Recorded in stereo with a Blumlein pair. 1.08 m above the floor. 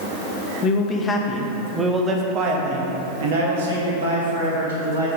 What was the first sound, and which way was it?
A man speaking, 30° left.